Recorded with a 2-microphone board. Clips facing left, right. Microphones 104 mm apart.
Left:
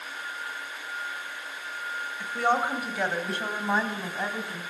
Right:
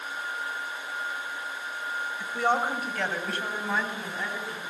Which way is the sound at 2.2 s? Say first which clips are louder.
Left 1 dB; 5° right (ahead or behind).